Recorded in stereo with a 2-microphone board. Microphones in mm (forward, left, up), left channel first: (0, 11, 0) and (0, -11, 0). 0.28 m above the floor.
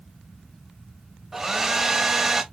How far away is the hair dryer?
About 0.8 m.